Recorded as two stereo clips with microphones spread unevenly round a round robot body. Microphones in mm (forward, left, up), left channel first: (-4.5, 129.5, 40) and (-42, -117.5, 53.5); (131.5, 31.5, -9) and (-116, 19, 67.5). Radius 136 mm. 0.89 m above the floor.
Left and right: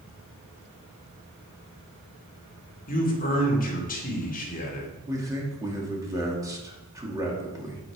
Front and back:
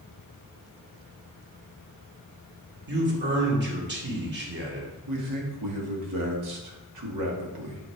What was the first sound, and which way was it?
A man speaking, 135° left.